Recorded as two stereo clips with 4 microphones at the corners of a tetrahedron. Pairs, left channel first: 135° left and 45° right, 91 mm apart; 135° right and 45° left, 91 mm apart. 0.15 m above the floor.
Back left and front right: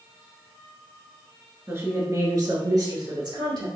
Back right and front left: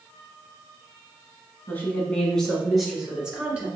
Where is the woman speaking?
85° right, 1.3 m; by 3.7 s 30° right, 1.9 m.